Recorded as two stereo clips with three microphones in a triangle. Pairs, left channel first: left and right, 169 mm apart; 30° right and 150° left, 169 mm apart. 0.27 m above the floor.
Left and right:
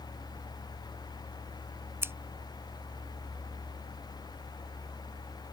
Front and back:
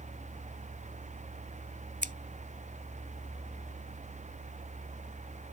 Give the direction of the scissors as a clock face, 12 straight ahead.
5 o'clock.